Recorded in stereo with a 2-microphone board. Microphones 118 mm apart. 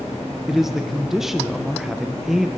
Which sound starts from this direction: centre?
A man speaking, at 0.5 s.